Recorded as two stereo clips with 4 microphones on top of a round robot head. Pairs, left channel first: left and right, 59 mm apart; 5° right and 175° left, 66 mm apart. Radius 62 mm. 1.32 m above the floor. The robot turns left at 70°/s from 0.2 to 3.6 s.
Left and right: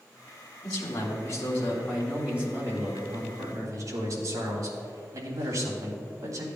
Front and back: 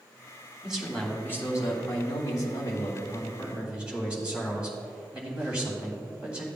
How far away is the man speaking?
About 3 m.